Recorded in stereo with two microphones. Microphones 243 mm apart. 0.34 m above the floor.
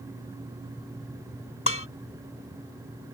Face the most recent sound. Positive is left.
turn(degrees=60)  # may be behind; listen again after turning